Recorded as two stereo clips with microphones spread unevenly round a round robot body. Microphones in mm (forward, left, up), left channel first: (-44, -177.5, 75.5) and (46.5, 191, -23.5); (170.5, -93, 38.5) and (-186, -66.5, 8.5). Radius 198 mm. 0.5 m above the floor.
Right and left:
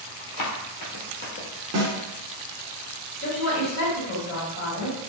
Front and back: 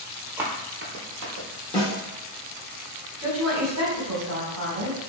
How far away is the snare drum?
About 0.8 m.